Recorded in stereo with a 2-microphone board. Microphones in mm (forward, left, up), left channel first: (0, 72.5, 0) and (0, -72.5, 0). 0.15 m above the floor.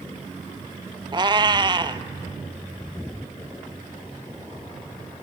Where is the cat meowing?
35° right (ahead or behind), 0.6 m.